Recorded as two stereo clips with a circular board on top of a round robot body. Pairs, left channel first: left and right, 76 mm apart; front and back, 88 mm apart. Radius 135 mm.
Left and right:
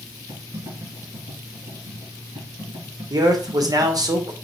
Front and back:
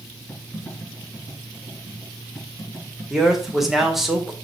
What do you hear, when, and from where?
0.3 s typing on a keyboard: 85° right, 5 m
3.1 s a man speaking: 95° right, 1.5 m